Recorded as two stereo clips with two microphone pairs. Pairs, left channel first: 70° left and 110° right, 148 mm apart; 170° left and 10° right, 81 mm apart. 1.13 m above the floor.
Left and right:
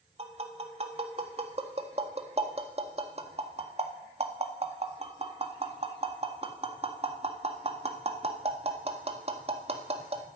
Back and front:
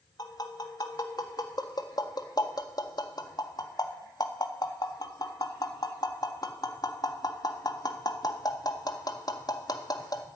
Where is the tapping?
155° right, 1.8 m.